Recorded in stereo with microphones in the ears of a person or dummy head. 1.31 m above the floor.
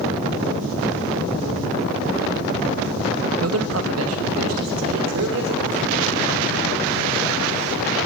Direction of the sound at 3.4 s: 80° right.